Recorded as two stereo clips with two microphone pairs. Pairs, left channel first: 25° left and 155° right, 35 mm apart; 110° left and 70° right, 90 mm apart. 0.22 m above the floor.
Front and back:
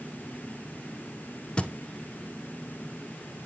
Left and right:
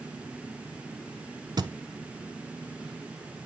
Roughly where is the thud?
Ahead right.